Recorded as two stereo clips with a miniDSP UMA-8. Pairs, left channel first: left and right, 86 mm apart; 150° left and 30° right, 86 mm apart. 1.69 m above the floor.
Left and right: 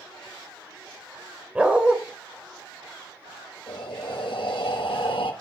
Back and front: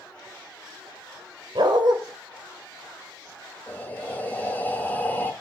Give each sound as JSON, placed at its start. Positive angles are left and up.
{"t": 1.6, "sound": "a dog barking", "azimuth_deg": -15, "distance_m": 2.5}
{"t": 3.7, "sound": "breathing", "azimuth_deg": 80, "distance_m": 2.5}